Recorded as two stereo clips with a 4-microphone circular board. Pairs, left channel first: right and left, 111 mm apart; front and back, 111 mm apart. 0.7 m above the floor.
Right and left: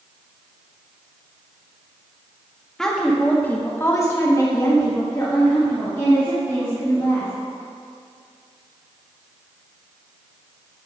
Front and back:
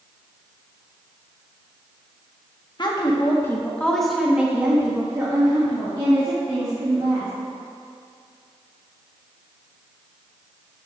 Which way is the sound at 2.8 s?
5° right.